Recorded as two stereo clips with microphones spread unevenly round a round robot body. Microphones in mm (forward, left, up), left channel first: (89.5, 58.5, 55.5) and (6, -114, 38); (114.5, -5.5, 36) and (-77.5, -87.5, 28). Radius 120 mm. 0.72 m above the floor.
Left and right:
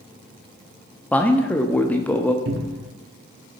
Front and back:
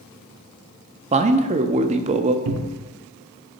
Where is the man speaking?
150° left, 0.7 m.